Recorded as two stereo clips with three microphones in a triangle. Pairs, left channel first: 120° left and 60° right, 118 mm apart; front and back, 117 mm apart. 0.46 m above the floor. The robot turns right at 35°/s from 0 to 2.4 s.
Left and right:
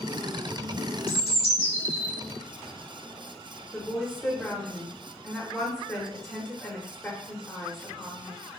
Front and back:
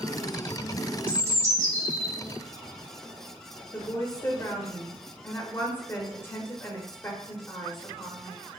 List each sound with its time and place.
1.1 s a bird: 105° left, 1.1 m; by 2.1 s 145° left, 1.1 m
3.7 s a woman speaking: 40° left, 0.7 m